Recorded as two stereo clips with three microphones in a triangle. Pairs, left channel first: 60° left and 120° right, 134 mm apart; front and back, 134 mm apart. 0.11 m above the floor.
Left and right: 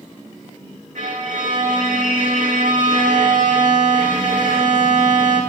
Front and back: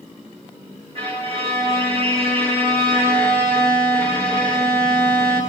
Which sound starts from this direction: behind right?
A violin, at 0.9 s.